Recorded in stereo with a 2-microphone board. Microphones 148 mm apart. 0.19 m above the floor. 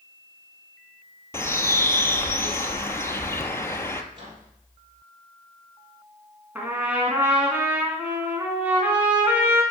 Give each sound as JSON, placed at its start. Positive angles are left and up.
{"t": 1.3, "sound": "a bird", "side_deg": 20, "distance_m": 1.0}
{"t": 4.1, "sound": "a microwave", "side_deg": -35, "distance_m": 5.0}
{"t": 6.5, "sound": "a trumpet", "side_deg": -10, "distance_m": 2.0}